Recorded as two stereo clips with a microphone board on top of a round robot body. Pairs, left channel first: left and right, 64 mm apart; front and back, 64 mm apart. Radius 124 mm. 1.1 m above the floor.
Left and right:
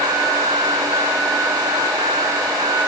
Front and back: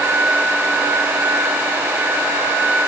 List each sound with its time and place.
Only background noise.